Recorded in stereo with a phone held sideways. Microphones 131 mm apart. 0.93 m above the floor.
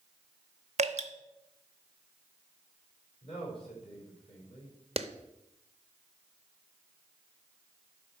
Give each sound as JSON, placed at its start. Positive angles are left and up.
{"t": 0.8, "sound": "dripping", "side_deg": -55, "distance_m": 0.9}
{"t": 3.2, "sound": "a man speaking", "side_deg": 45, "distance_m": 5.0}
{"t": 5.0, "sound": "a clap", "side_deg": -50, "distance_m": 0.6}